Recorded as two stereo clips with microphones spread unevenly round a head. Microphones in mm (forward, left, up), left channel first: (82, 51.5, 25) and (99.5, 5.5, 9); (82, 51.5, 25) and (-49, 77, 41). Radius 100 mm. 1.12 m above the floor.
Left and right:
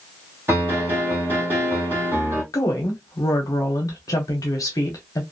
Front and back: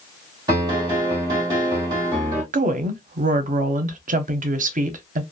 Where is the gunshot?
I don't hear a gunshot.